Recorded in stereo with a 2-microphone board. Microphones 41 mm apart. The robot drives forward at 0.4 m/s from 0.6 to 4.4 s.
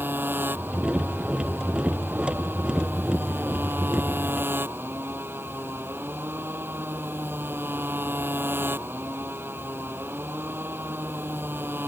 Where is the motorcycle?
60° right (ahead or behind); by 11.9 s 65° right (ahead or behind).